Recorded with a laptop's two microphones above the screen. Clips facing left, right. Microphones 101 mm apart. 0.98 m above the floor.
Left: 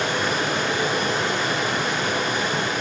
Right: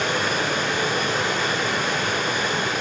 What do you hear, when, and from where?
0.0 s running water: 5° left (ahead or behind), 4 m